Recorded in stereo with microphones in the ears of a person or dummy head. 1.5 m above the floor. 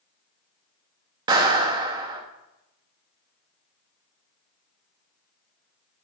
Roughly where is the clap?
Right.